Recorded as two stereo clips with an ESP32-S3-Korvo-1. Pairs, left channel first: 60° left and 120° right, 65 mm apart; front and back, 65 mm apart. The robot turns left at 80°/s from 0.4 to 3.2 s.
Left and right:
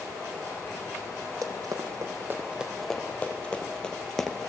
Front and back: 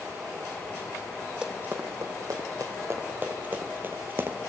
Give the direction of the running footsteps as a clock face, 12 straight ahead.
4 o'clock.